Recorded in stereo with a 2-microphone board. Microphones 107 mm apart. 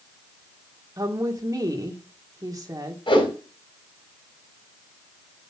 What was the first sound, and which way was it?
A woman speaking, 35° right (ahead or behind).